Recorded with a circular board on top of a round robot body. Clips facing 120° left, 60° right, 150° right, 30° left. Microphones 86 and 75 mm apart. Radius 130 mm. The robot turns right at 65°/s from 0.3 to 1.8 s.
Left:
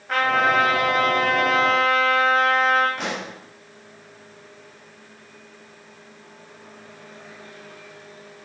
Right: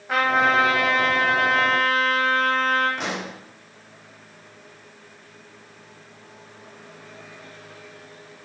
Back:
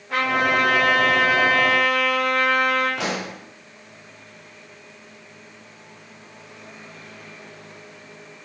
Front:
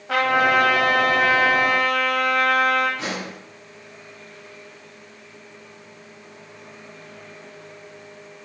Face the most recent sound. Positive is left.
turn(degrees=-150)